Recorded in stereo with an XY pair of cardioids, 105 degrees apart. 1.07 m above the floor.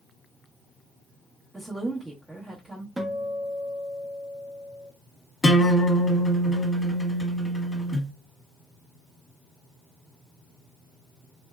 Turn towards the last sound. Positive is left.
turn(degrees=25)